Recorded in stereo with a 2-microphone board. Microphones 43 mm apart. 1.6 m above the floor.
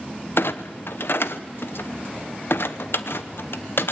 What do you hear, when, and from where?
0.4 s a clunk: 65° left (ahead or behind), 0.9 m